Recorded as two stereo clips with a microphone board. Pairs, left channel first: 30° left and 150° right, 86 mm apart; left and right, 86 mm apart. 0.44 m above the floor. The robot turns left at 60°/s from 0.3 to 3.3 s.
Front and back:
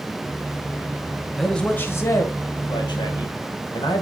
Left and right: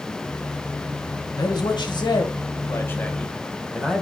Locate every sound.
1.4 s a man speaking: 120° left, 1.6 m; by 4.0 s 5° left, 1.6 m